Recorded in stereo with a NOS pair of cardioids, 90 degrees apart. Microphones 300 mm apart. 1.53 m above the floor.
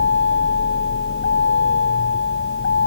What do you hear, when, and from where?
0.0 s a vehicle: 40° left